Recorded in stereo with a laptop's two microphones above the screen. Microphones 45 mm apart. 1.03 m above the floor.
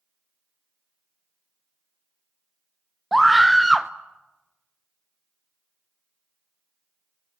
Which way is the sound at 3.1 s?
5° right (ahead or behind).